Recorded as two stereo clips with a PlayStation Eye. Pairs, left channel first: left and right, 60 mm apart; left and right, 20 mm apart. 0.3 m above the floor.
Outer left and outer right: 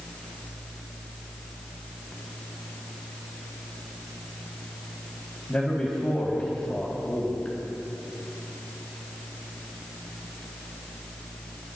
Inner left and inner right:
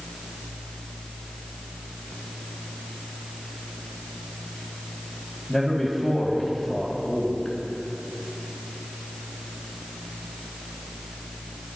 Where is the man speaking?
20° left (ahead or behind), 2 m.